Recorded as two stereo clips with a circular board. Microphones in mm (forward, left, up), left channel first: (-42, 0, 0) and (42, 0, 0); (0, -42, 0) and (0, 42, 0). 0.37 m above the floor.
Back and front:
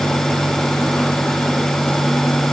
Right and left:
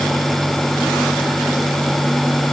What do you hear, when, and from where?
Only background noise.